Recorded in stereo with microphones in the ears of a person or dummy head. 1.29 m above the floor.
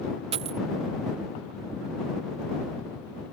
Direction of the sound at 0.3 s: 30° right (ahead or behind).